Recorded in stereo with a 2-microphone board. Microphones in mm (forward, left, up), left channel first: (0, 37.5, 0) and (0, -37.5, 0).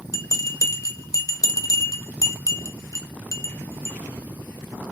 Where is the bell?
45° left (ahead or behind), 0.7 m.